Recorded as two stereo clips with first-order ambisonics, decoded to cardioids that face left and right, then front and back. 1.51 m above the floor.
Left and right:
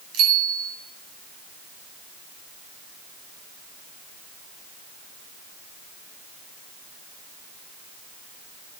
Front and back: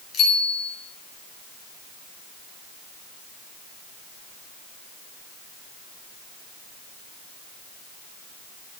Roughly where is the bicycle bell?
Ahead right.